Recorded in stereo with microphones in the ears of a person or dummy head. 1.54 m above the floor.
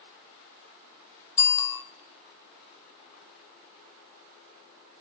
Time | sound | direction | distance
1.4 | a bicycle bell | 15° left (ahead or behind) | 2.5 m